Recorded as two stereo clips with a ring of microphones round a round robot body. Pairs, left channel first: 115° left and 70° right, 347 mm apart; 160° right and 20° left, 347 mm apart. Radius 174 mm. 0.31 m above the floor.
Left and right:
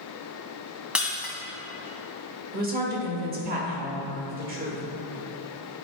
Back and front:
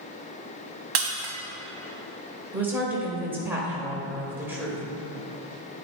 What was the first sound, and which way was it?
Breaking glass, 20° left.